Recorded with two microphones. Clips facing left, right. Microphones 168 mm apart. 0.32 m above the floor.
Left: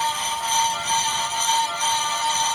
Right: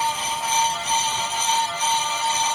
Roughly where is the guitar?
No guitar in this recording.